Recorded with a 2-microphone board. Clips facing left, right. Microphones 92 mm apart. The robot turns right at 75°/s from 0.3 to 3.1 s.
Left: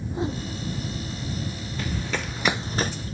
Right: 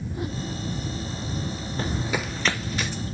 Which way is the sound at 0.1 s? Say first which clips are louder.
Left 4 dB; 25° left (ahead or behind).